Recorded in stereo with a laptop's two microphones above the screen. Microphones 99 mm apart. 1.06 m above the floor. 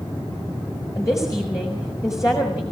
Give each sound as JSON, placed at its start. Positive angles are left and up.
{"t": 0.9, "sound": "a woman speaking", "side_deg": 30, "distance_m": 4.5}